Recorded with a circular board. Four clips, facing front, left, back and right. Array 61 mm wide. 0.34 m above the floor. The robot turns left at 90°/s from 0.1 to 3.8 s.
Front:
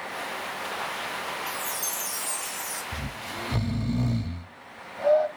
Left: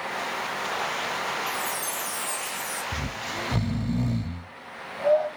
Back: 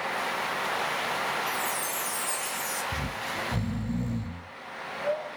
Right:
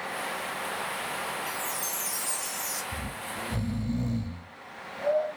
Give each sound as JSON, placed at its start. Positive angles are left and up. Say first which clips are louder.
{"t": 1.5, "sound": "a chime", "louder": "left 4 dB, back 3 dB", "azimuth_deg": 25, "distance_m": 1.2}
{"t": 2.9, "sound": "snoring", "louder": "left 4 dB, back 3 dB", "azimuth_deg": 115, "distance_m": 0.6}